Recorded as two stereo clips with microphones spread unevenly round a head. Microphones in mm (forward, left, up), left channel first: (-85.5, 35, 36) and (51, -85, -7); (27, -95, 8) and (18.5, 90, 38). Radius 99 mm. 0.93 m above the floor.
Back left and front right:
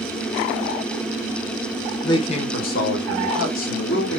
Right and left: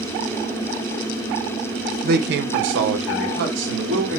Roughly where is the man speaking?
Ahead left.